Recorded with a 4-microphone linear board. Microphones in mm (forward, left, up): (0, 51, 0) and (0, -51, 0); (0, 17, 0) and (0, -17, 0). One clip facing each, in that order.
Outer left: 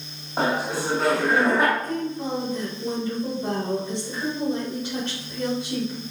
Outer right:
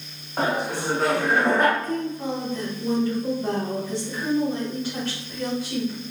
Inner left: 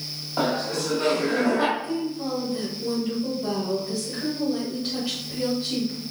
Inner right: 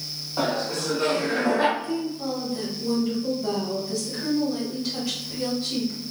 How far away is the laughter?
About 0.8 m.